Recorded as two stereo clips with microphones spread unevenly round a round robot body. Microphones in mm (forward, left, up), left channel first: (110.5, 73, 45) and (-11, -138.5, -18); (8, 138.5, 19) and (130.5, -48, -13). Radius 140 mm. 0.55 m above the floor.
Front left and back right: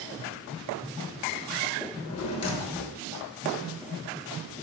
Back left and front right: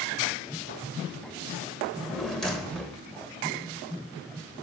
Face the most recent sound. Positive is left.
turn(degrees=35)